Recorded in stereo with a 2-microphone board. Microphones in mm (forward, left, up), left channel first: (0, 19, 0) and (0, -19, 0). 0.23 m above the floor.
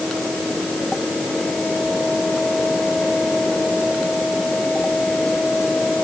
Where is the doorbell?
No doorbell in this recording.